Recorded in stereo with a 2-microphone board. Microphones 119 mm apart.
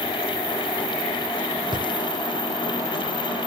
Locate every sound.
1.7 s a drawer: 45° right (ahead or behind)